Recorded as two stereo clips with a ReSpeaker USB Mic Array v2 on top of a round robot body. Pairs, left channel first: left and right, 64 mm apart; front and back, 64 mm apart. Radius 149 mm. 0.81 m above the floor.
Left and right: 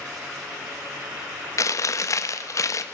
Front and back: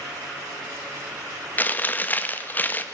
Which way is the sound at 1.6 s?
60° left.